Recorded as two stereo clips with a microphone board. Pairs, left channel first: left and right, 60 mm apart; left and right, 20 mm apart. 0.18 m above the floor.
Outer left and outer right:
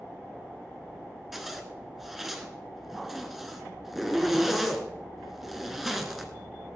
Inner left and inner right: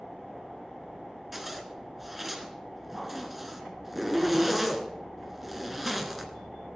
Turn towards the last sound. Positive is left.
turn(degrees=0)  # may be behind; listen again after turning